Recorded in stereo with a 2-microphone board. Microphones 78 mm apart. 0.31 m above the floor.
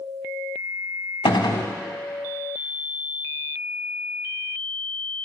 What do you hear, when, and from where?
1.2 s a gunshot: 70° left (ahead or behind), 0.8 m